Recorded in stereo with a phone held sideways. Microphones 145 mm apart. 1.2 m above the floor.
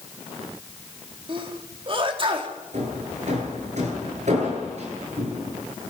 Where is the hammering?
55° right (ahead or behind), 9.5 m.